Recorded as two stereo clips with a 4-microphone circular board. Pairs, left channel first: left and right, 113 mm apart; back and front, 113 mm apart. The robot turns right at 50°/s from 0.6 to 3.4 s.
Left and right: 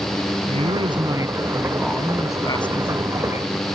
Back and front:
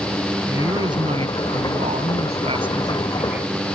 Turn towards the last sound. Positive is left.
turn(degrees=80)